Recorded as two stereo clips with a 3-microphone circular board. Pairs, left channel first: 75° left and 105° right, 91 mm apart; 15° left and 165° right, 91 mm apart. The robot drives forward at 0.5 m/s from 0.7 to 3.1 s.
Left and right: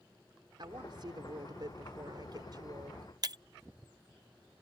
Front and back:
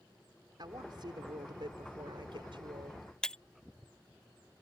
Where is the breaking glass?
65° right.